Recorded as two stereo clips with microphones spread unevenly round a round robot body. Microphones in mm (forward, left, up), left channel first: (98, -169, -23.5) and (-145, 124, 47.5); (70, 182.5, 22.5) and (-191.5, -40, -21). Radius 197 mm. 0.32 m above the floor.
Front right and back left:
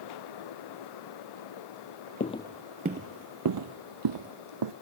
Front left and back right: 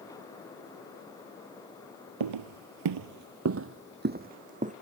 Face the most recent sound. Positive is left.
turn(degrees=150)